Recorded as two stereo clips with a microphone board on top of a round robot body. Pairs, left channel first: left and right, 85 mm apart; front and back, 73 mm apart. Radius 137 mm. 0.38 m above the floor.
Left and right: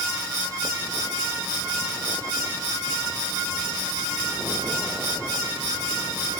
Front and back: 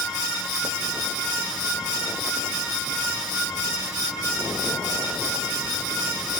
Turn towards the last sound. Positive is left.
No sound to turn to.